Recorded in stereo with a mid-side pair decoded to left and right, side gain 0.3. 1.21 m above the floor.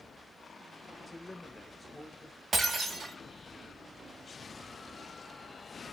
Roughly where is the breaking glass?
Ahead right.